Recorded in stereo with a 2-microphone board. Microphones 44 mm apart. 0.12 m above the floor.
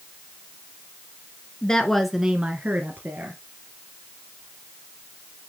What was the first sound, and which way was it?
A woman speaking, 20° left (ahead or behind).